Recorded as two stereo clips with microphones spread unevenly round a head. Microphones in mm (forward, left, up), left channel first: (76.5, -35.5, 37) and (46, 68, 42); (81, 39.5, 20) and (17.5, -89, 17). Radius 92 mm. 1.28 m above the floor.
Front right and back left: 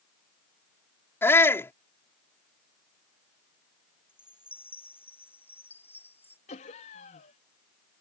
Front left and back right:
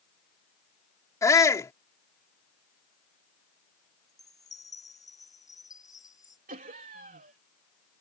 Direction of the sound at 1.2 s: 5° right.